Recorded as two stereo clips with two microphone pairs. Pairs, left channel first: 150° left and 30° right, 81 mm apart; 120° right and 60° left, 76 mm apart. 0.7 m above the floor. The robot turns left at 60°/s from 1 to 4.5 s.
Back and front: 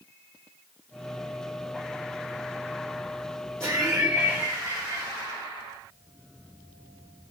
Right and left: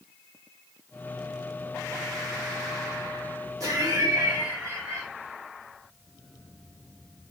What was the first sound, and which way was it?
Laughter, 70° left.